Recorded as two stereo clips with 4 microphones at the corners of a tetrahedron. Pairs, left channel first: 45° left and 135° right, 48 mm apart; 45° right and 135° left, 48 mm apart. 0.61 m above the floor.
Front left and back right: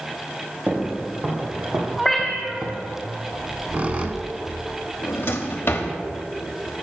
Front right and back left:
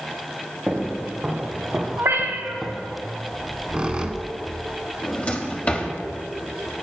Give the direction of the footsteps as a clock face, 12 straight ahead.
6 o'clock.